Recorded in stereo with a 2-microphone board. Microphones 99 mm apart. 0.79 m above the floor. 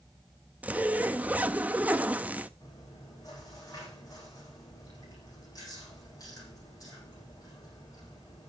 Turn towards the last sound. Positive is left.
turn(degrees=35)  # may be behind; listen again after turning